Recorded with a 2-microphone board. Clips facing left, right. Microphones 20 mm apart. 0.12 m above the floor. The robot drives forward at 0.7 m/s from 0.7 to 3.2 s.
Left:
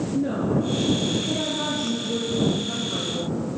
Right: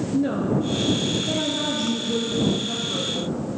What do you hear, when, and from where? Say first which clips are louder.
0.1 s a woman speaking: right 2 dB; 25° right (ahead or behind), 1.5 m; by 3.4 s 15° right (ahead or behind), 3 m